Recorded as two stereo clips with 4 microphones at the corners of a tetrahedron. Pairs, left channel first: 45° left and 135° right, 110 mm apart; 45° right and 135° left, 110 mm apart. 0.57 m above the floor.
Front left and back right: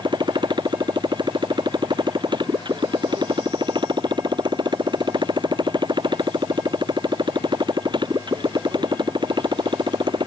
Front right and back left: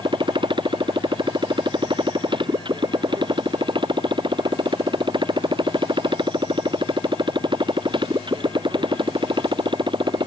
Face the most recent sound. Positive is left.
turn(degrees=175)